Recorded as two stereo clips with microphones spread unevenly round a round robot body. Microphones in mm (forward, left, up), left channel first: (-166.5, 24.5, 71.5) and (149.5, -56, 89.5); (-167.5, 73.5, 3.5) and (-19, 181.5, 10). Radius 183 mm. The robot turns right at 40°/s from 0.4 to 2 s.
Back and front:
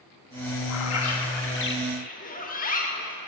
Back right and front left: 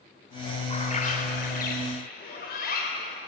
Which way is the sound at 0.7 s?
170° left.